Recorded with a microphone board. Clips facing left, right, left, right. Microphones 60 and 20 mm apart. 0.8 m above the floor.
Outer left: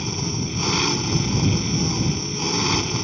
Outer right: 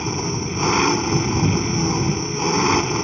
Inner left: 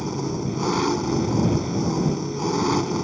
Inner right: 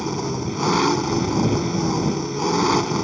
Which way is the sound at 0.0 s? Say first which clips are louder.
Outer right 3 dB, inner right 2 dB; 25° right (ahead or behind).